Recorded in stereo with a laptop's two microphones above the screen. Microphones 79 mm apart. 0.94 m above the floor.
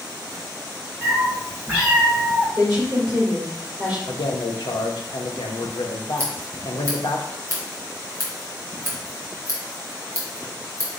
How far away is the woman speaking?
About 2 m.